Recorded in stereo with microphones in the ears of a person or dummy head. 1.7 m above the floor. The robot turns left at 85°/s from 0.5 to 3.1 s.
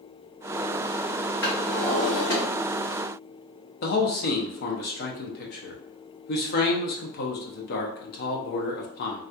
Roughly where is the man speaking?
Left.